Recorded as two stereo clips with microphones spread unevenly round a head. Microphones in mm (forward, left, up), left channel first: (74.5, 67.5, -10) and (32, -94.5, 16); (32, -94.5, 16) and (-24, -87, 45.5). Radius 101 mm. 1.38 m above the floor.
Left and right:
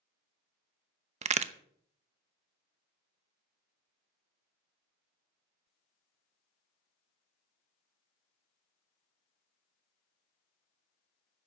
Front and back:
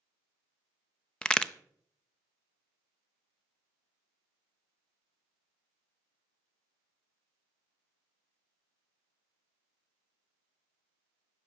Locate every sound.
1.2 s a crack: 55° right, 0.7 m